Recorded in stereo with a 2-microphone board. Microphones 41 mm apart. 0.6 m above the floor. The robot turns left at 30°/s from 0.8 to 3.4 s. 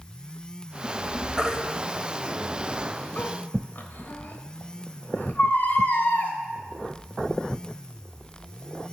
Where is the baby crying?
15° right (ahead or behind), 1.1 m; by 6.3 s 45° left (ahead or behind), 1.1 m.